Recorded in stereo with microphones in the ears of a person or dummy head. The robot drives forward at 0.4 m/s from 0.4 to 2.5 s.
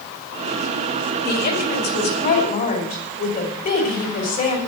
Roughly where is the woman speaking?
Left.